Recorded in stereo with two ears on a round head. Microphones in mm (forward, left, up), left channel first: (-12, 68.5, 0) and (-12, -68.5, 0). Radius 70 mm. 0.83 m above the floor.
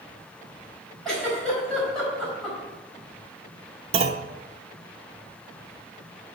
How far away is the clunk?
About 0.6 m.